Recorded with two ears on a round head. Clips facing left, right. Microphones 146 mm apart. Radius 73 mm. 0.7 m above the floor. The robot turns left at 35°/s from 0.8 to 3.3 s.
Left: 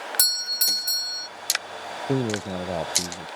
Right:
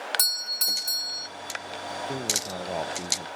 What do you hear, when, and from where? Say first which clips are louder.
0.2 s a doorbell: left 2 dB; 5° left (ahead or behind); by 1.3 s 5° right (ahead or behind)
2.1 s a man speaking: left 8 dB; 40° left; by 3.3 s straight ahead